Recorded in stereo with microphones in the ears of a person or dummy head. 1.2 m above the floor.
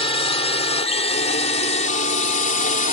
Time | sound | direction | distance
0.0 | a drone | 25° left (ahead or behind) | ?